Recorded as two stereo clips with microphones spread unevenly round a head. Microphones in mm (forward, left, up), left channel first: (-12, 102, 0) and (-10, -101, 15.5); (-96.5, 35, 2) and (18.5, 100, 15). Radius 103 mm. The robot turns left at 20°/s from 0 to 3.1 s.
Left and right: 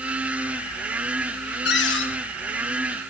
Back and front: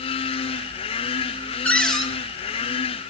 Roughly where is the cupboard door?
Behind left.